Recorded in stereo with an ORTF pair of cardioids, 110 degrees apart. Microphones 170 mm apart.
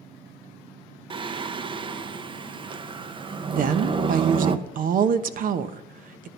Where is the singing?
30° right, 0.8 m.